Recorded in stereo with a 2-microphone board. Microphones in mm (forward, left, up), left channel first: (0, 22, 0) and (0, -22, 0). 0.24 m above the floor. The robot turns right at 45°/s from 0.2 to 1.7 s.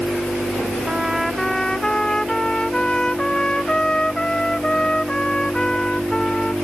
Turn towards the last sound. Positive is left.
turn(degrees=20)